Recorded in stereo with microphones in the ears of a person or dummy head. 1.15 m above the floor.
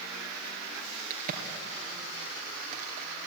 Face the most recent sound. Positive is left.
turn(degrees=-45)  # may be behind; listen again after turning